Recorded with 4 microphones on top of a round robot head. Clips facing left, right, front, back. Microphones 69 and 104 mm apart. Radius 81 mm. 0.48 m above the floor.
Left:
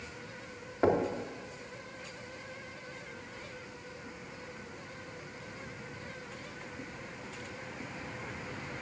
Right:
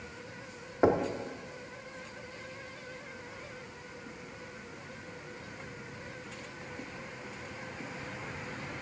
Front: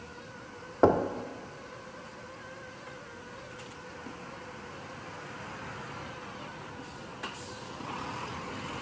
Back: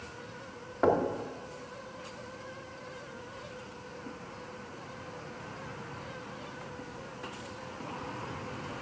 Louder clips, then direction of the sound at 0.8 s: Right 1 dB, front 3 dB; 25° right.